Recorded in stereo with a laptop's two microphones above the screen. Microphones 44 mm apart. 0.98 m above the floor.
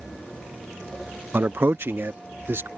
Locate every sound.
1.3 s a man speaking: 50° right (ahead or behind); by 2.7 s 60° right (ahead or behind)